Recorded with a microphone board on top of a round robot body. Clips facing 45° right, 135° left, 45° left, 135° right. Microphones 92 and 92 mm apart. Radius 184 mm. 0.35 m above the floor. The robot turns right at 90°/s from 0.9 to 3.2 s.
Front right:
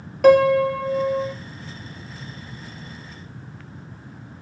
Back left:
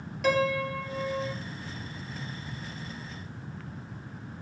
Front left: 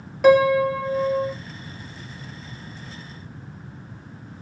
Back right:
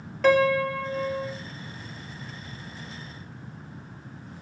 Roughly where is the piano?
Ahead right.